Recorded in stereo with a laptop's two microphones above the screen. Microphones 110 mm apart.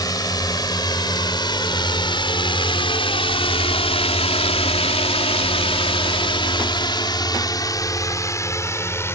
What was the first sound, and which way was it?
A drone, 35° left (ahead or behind).